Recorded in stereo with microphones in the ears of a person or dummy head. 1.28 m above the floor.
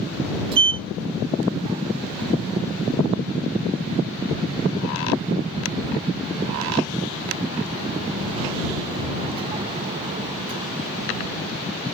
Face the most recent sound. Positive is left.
turn(degrees=-30)  # may be behind; listen again after turning